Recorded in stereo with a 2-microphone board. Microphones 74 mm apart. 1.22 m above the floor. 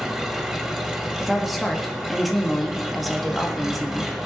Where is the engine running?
10° right (ahead or behind), 1.5 m.